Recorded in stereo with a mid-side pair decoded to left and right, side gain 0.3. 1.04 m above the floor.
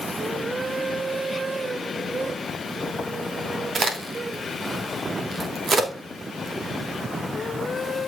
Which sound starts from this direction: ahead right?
A crack, at 3.8 s.